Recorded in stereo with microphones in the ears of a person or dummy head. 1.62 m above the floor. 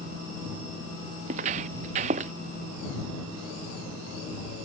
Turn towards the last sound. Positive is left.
turn(degrees=-40)  # may be behind; listen again after turning